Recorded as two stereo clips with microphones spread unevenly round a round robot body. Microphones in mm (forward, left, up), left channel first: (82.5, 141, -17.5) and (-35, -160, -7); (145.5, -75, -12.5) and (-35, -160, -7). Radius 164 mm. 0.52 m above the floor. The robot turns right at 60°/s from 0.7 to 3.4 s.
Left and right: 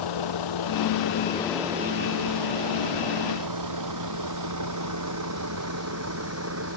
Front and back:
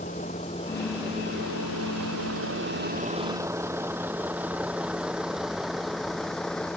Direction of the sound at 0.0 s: 95° left.